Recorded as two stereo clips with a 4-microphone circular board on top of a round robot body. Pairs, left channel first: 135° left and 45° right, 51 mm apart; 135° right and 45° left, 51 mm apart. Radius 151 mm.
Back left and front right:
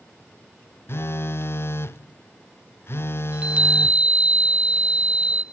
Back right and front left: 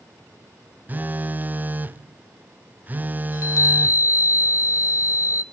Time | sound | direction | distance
0.9 | a phone buzzing | 105° left | 0.7 m
3.3 | a chime | 110° right | 1.1 m